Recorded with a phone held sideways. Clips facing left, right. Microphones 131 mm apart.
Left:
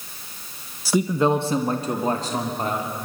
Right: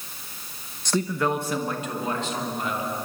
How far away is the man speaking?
About 1.0 m.